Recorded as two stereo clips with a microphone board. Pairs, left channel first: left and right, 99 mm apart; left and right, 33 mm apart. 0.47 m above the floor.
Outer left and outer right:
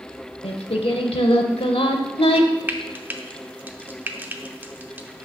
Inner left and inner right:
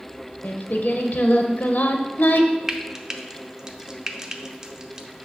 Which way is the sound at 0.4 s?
75° left (ahead or behind).